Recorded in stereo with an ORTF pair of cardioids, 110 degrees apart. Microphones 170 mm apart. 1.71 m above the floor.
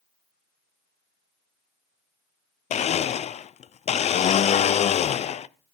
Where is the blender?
40° left, 0.8 m.